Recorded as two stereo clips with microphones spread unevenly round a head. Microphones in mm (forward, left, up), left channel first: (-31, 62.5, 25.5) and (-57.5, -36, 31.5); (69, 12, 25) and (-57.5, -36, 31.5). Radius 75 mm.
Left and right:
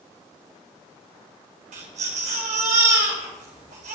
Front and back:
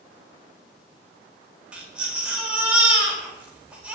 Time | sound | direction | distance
1.7 | a baby crying | 80° right | 4.5 m